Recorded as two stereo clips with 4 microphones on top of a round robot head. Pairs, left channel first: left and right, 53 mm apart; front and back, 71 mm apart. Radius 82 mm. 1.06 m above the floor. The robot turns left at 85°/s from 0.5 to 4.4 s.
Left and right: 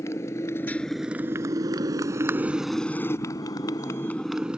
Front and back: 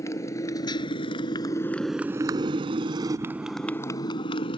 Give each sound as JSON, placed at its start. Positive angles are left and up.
{"t": 0.0, "sound": "a motorcycle", "azimuth_deg": 45}